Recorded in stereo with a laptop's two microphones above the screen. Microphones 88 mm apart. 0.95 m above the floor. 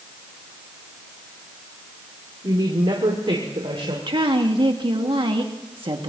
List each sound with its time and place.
2.4 s a woman speaking: 50° right (ahead or behind), 2 m; by 4.0 s 80° right, 2.5 m
4.1 s a woman speaking: 65° right (ahead or behind), 1.9 m